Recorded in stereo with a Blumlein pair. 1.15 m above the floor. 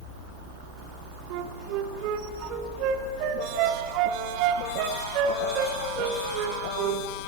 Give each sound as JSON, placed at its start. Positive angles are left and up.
{"t": 1.3, "sound": "a flute", "azimuth_deg": -40, "distance_m": 1.0}